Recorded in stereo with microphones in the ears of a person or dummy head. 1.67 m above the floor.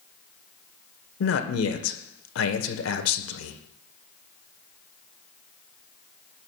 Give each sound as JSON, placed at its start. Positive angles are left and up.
{"t": 1.2, "sound": "a man speaking", "side_deg": 75, "distance_m": 1.3}